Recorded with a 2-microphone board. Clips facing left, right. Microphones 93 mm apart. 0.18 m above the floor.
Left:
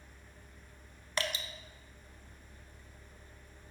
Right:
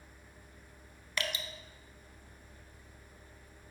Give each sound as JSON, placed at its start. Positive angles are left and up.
{"t": 1.2, "sound": "dripping", "side_deg": 35, "distance_m": 0.5}